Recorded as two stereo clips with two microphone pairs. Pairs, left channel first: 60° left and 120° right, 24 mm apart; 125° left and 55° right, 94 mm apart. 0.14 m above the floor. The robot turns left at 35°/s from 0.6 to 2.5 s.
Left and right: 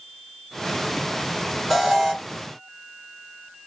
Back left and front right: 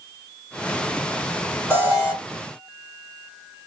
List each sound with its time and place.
1.7 s an alarm: 155° left, 1.7 m; by 2.1 s 140° left, 1.7 m